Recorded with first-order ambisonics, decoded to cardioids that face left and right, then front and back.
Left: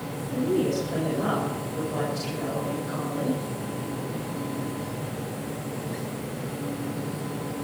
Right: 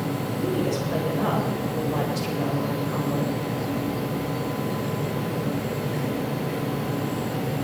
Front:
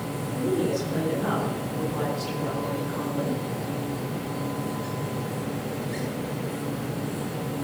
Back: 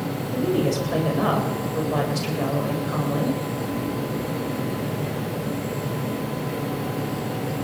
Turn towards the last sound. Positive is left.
turn(degrees=-170)